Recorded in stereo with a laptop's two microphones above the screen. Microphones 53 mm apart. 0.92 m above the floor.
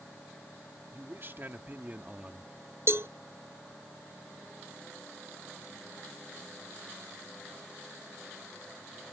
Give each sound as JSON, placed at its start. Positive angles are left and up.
{"t": 0.9, "sound": "a man speaking", "side_deg": -50}
{"t": 2.9, "sound": "a cowbell", "side_deg": -55}